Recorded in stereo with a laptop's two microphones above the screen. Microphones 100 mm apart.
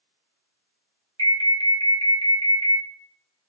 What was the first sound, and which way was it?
An alarm, 70° right (ahead or behind).